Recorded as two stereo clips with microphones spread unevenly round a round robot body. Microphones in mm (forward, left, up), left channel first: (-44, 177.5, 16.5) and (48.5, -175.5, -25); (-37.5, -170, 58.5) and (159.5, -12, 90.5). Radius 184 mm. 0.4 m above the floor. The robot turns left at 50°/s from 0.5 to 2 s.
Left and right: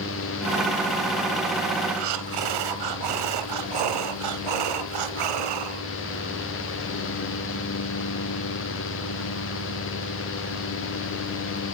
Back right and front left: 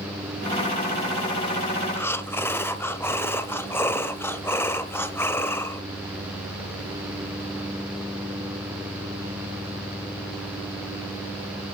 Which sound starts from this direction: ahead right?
Breathing, at 2.0 s.